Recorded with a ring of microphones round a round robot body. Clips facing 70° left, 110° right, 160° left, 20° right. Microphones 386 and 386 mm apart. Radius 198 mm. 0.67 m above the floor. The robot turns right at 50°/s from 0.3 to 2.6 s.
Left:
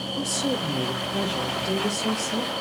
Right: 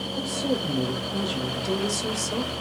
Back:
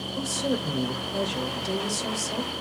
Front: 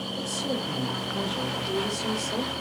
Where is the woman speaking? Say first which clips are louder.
Even, back 4 dB; 125° left, 3.5 m; by 2.5 s 125° right, 3.5 m.